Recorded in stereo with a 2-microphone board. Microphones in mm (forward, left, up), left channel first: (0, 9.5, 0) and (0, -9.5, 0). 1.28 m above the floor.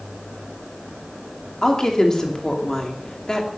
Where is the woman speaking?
30° left (ahead or behind), 2.5 m.